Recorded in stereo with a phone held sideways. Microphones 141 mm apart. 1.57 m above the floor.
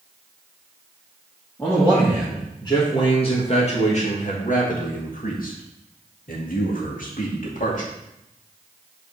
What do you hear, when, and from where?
1.6 s a man speaking: 15° left (ahead or behind), 2 m; by 7.9 s 60° left (ahead or behind), 2.5 m